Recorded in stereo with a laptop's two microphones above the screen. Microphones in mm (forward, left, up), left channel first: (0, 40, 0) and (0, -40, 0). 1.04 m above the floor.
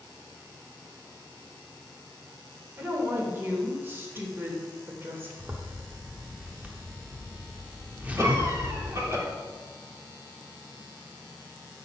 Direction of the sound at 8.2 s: 35° right (ahead or behind).